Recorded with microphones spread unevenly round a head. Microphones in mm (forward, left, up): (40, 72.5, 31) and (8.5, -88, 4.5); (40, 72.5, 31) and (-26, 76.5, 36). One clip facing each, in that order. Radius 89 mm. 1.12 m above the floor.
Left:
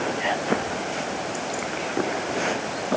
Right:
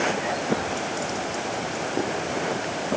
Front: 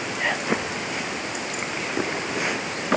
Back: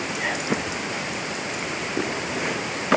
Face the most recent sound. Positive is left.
No sound to turn to.